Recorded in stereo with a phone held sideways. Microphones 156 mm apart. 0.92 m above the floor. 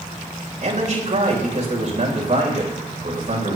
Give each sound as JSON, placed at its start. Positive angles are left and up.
{"t": 0.6, "sound": "a man speaking", "side_deg": -50, "distance_m": 3.5}